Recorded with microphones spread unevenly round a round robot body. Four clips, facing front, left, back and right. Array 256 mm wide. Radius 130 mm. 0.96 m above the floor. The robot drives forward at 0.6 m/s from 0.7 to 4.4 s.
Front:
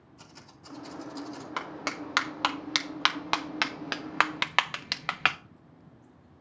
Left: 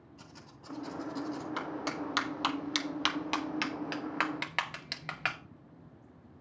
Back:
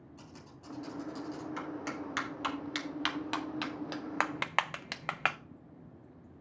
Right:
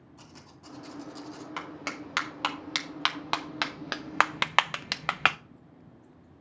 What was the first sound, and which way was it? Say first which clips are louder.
Typing on a keyboard: right 2 dB, front 2 dB; 145° right.